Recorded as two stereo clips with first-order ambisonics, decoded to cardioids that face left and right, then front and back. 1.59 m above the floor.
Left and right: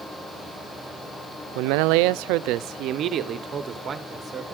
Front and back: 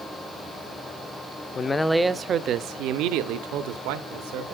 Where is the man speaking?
70° right, 0.5 m; by 4.5 s 165° right, 1.4 m.